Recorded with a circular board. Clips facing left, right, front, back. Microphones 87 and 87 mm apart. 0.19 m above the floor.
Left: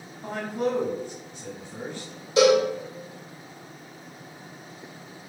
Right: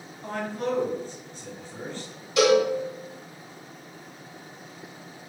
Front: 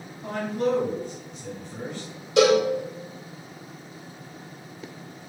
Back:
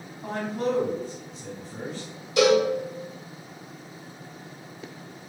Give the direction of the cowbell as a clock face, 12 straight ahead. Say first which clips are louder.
Left 1 dB, front 1 dB; 11 o'clock.